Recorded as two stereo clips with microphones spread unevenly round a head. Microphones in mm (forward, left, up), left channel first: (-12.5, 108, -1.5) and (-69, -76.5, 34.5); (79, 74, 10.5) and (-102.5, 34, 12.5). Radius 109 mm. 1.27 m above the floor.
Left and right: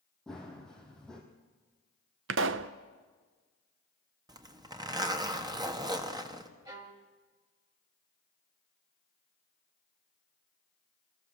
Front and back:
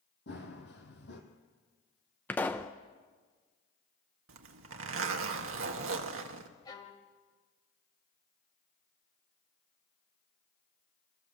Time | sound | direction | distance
0.3 | running footsteps | 20° right | 2.5 m
2.3 | a pop | 70° right | 0.5 m
4.3 | a zipper | 175° right | 1.5 m
6.7 | a violin | 55° right | 1.3 m